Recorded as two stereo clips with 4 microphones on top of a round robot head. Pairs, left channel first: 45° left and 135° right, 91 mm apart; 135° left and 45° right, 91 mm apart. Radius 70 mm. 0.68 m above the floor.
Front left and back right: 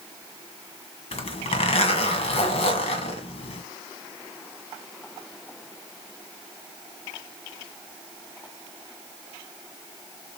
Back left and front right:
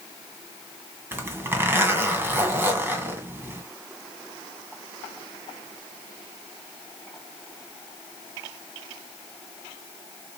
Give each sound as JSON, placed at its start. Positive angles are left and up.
{"t": 1.1, "sound": "a zipper", "azimuth_deg": 25, "distance_m": 2.0}